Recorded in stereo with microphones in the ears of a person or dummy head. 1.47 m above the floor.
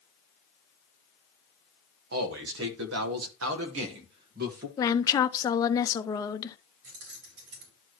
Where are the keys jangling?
80° right, 5 m.